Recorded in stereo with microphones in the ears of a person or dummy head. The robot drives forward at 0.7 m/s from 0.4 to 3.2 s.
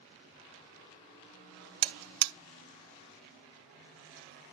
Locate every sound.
1.8 s a buzzer: 50° right (ahead or behind), 0.7 m; by 2.3 s 80° right, 0.5 m